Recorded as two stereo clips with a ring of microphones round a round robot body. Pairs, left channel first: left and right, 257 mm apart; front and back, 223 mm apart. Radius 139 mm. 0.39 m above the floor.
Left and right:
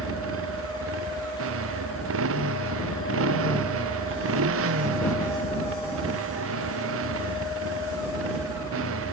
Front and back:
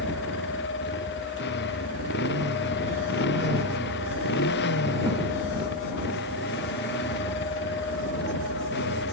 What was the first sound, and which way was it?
A motorcycle, 50° right.